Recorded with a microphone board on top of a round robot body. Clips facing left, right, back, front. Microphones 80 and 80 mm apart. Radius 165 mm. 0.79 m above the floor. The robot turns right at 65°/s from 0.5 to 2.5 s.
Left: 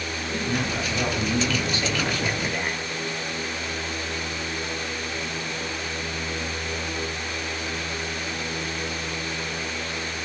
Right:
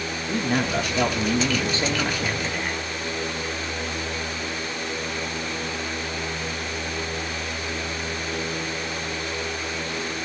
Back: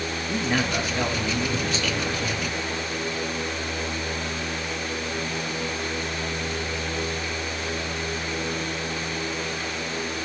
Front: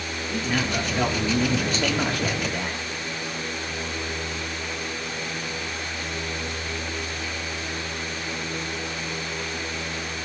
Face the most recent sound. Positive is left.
turn(degrees=10)